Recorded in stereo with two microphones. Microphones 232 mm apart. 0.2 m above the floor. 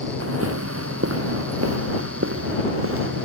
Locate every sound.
0.2 s footsteps: 80° right; by 3.2 s 65° right (ahead or behind)